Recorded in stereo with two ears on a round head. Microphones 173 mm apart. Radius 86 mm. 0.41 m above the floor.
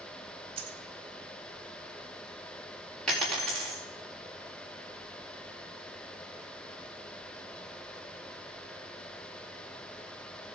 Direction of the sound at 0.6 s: 30° right (ahead or behind).